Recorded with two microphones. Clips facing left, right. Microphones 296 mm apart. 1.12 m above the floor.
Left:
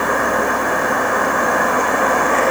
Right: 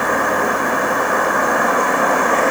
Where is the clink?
No clink in this recording.